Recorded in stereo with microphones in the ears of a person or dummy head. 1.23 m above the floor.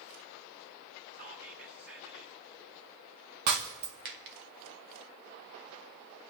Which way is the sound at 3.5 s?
55° right (ahead or behind).